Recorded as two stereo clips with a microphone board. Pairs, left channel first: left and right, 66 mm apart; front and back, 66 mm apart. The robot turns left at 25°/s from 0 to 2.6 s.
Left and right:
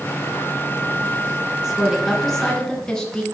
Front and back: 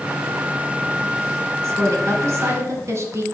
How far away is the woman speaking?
About 1.5 m.